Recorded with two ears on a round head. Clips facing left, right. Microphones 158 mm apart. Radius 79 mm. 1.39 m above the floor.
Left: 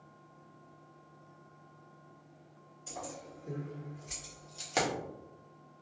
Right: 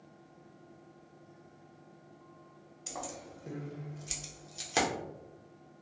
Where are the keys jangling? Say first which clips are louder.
Right 1 dB; 75° right (ahead or behind), 1.0 m; by 4.9 s 5° right (ahead or behind), 0.7 m.